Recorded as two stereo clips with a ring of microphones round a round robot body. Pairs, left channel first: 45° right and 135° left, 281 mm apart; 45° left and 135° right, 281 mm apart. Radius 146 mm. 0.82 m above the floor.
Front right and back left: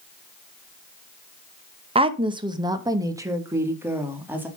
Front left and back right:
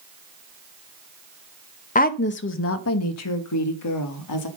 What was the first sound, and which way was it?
A woman speaking, 80° left.